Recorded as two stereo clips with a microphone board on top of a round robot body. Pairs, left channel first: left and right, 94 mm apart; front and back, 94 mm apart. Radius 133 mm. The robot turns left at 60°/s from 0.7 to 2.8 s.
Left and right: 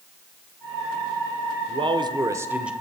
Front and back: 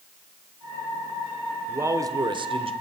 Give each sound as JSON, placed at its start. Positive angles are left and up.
{"t": 1.7, "sound": "a man speaking", "azimuth_deg": -110, "distance_m": 2.0}